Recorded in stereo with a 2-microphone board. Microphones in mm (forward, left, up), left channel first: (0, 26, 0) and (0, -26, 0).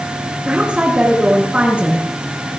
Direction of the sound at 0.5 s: 25° right (ahead or behind).